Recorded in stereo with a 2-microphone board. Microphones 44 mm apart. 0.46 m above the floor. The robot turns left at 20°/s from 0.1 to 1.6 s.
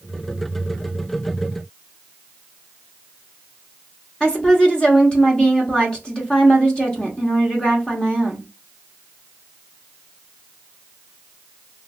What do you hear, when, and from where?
4.2 s a woman speaking: 20° left (ahead or behind), 0.8 m